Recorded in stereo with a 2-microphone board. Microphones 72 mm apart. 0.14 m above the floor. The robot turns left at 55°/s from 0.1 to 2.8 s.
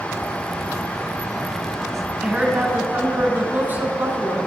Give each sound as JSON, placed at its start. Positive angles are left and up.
{"t": 2.2, "sound": "a woman speaking", "azimuth_deg": -35, "distance_m": 1.4}